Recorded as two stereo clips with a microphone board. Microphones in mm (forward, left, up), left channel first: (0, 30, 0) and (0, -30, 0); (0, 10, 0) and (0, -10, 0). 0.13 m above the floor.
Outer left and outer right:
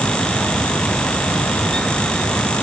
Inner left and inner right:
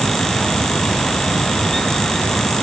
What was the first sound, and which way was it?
Only background noise.